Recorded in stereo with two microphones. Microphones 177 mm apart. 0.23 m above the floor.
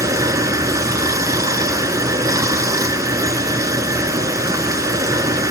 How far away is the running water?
About 1.3 m.